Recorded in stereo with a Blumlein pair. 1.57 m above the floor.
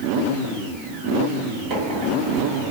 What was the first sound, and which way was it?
A microwave, 40° right.